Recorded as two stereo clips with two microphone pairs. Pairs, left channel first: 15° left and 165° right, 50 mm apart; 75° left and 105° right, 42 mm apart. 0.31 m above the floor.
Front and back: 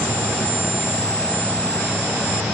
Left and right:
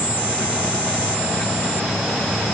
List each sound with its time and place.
Only background noise.